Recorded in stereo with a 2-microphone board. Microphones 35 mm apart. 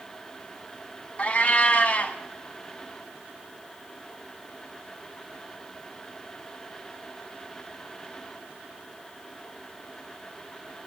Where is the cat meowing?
40° left (ahead or behind), 1.3 m.